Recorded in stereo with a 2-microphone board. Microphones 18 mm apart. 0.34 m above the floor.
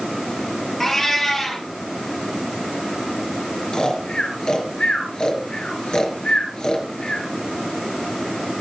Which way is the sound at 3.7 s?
50° left (ahead or behind).